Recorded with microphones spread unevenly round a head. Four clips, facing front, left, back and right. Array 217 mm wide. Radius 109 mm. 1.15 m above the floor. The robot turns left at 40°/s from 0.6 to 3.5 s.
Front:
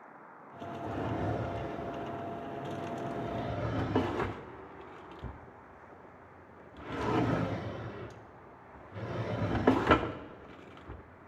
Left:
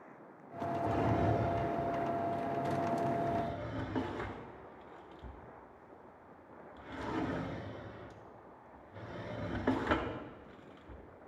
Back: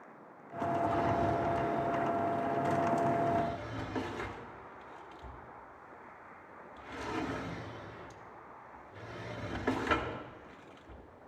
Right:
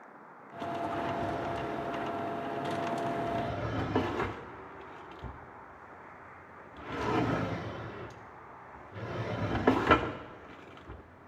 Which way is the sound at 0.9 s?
70° left.